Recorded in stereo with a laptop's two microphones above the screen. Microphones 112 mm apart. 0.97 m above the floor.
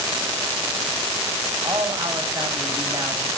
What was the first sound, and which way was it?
A man speaking, 30° right (ahead or behind).